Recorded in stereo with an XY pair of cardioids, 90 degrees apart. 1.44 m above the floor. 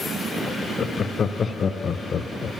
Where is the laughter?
55° left, 0.7 m.